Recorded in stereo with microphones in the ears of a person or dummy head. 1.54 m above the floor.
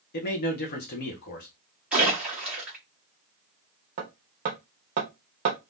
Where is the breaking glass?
No breaking glass in this recording.